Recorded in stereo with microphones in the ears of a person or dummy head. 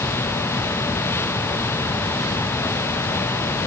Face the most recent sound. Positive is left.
No sound to turn to.